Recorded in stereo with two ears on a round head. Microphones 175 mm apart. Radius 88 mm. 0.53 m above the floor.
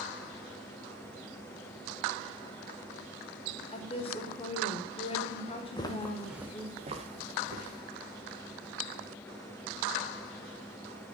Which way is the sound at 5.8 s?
25° left (ahead or behind).